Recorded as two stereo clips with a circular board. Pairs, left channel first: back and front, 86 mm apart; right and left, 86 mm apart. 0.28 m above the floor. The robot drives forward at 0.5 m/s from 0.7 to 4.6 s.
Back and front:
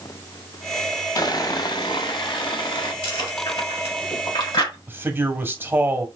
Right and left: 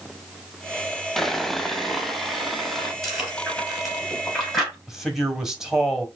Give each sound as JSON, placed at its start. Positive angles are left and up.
{"t": 1.2, "sound": "sawing", "azimuth_deg": -175, "distance_m": 0.6}
{"t": 3.0, "sound": "chewing", "azimuth_deg": -175, "distance_m": 3.5}
{"t": 4.9, "sound": "a man speaking", "azimuth_deg": 15, "distance_m": 1.1}